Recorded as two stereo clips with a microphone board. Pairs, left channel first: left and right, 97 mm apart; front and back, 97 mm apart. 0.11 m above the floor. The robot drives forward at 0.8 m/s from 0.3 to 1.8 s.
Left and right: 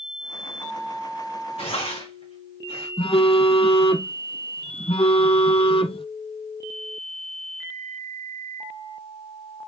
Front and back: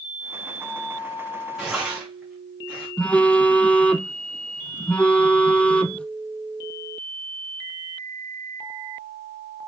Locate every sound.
1.6 s tearing paper: 95° left, 4 m; by 2.9 s 100° left, 4 m
3.0 s a phone buzzing: 80° left, 0.7 m